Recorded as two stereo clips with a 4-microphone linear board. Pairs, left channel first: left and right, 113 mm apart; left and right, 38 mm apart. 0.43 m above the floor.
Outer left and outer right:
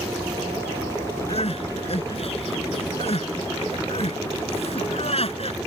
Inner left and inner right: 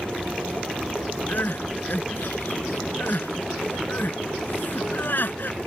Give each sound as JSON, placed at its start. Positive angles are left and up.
{"t": 1.3, "sound": "crying", "side_deg": 60}